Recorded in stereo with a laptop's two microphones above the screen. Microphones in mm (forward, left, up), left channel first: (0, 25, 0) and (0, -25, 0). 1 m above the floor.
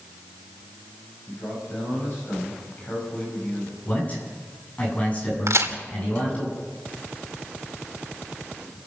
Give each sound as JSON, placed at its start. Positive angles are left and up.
{"t": 1.3, "sound": "a man speaking", "side_deg": 35, "distance_m": 8.0}
{"t": 3.9, "sound": "a man speaking", "side_deg": 25, "distance_m": 8.0}
{"t": 5.5, "sound": "a crack", "side_deg": -75, "distance_m": 2.5}